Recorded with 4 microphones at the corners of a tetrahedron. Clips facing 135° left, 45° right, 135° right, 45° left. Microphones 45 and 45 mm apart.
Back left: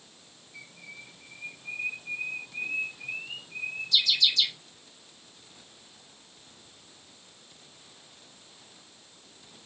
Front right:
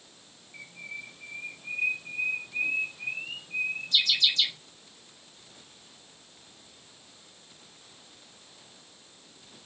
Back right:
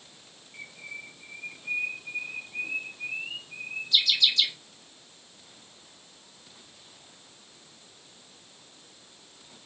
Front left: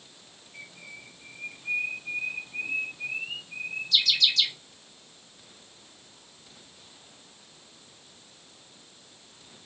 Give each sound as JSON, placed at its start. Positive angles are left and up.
{"t": 0.5, "sound": "a bird", "azimuth_deg": -75, "distance_m": 1.7}